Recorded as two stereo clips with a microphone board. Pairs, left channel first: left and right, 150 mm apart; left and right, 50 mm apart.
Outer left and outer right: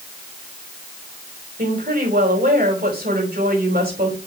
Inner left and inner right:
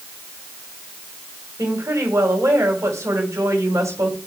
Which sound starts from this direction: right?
A woman speaking, at 1.6 s.